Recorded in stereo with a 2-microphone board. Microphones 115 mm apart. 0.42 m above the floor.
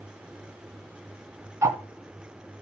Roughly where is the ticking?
Right.